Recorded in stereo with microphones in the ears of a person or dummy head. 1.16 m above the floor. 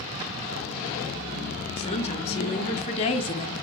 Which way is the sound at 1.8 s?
35° left (ahead or behind).